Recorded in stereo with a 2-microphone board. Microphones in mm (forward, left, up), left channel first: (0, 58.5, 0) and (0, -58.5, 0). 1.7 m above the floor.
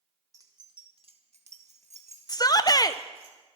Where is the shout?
35° left (ahead or behind), 0.7 m.